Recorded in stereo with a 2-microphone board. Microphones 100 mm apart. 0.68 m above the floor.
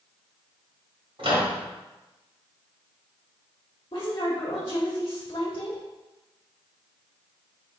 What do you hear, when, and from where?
1.2 s a microwave: 65° right (ahead or behind), 1.6 m
3.9 s a woman speaking: 50° left (ahead or behind), 0.9 m